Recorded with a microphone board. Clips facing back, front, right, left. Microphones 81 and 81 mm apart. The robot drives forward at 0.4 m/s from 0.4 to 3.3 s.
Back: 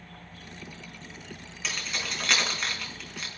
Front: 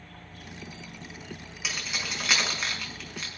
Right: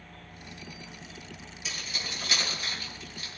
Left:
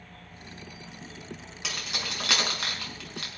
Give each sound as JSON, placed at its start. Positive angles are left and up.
{"t": 1.6, "sound": "keys jangling", "azimuth_deg": 85, "distance_m": 5.0}